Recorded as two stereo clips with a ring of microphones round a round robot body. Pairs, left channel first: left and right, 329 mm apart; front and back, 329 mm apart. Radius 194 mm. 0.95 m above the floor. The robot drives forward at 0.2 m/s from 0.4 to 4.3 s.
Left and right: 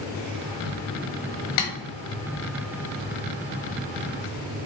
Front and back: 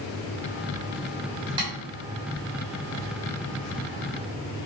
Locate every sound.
1.6 s tapping: 100° left, 1.3 m; by 1.7 s 105° left, 1.3 m